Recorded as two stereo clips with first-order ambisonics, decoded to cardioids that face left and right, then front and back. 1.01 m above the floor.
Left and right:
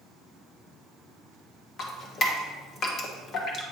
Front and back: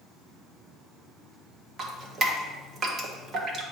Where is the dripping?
130° left, 0.8 m.